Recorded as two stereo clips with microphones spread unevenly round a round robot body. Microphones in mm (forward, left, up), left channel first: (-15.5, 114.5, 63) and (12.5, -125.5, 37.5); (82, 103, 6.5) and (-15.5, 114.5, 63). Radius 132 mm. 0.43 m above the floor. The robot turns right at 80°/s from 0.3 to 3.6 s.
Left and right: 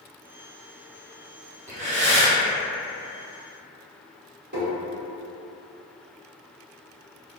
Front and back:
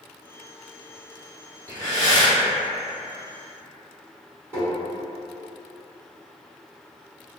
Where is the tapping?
85° right, 1.8 m.